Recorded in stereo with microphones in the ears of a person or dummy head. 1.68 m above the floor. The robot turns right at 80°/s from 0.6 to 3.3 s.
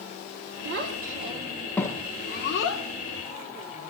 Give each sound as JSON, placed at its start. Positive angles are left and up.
{"t": 0.7, "sound": "a child speaking", "side_deg": -70, "distance_m": 1.3}